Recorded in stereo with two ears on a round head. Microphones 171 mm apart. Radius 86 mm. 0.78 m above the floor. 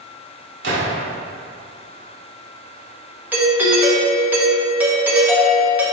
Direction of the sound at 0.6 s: 65° right (ahead or behind).